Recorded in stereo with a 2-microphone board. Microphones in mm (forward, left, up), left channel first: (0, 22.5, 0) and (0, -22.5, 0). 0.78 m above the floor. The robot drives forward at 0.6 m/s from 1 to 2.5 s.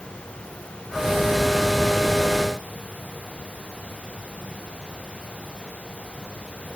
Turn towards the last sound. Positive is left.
No sound to turn to.